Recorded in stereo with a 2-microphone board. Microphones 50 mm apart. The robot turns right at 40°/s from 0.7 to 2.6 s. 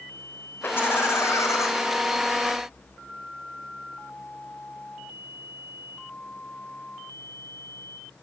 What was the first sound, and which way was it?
Laughter, 40° left.